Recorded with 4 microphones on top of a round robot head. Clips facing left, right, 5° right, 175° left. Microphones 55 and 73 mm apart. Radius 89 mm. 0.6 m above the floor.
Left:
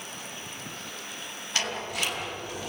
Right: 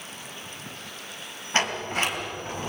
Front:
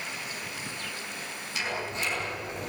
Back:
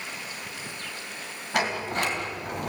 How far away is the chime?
No chime in this recording.